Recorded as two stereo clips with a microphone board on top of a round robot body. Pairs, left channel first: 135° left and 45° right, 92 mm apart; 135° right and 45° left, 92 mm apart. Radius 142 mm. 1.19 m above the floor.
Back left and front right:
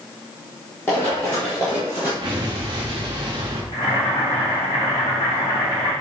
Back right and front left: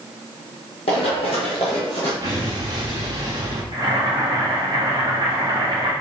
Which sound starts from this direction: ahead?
An explosion, at 2.2 s.